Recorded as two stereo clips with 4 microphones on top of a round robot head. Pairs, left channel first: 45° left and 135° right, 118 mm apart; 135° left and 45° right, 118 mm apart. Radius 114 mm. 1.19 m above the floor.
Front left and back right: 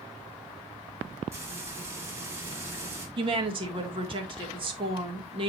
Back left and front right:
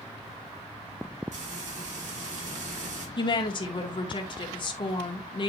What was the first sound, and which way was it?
Frying, 65° right.